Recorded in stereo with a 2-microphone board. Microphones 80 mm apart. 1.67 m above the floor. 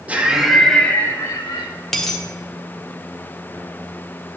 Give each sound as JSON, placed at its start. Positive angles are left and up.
{"t": 0.1, "sound": "laughter", "side_deg": -15, "distance_m": 1.3}
{"t": 1.9, "sound": "a dropped coin", "side_deg": 5, "distance_m": 1.3}